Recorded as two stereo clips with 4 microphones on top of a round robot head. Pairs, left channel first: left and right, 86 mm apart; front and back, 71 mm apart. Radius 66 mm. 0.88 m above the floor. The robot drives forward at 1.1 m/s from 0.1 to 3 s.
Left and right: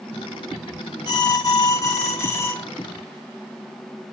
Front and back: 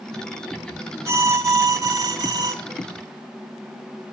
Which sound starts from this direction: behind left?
An alarm, at 1.1 s.